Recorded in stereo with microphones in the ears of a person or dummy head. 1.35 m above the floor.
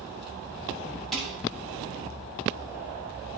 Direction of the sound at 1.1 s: Centre (ahead or behind).